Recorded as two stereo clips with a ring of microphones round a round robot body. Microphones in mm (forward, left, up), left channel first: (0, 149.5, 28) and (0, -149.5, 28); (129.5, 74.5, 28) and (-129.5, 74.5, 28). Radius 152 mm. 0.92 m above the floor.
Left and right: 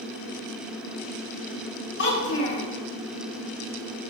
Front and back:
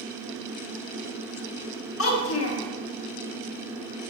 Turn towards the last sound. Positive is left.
turn(degrees=35)